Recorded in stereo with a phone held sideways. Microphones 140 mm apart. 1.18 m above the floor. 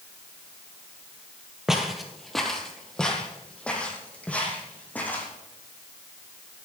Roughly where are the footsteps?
Centre.